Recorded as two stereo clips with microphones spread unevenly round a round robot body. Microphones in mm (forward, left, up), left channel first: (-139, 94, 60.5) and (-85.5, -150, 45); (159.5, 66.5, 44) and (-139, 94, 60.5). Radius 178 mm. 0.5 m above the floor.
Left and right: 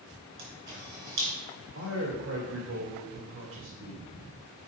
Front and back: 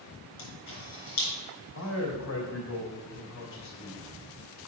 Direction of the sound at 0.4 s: 50° right.